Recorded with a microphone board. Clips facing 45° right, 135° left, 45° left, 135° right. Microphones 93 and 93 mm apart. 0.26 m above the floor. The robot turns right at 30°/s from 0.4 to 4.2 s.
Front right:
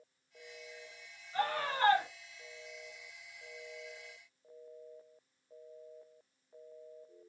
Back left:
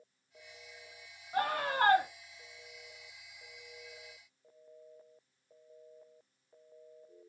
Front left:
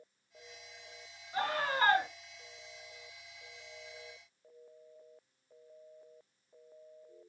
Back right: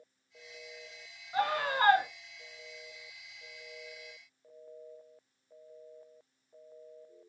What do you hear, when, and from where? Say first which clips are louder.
1.3 s a scream: back left 2 dB, back right 3 dB; 150° left, 2.5 m; by 2.0 s 170° left, 2.5 m